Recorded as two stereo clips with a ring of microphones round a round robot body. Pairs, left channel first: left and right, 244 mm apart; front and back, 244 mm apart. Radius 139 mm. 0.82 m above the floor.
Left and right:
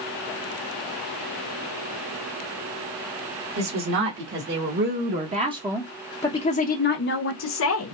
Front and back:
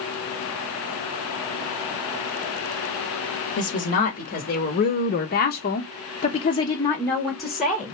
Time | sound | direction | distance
3.6 | a woman speaking | 55° right | 2.5 m